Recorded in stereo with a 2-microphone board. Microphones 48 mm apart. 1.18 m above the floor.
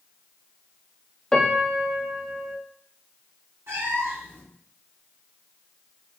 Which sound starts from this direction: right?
A cat meowing, at 3.7 s.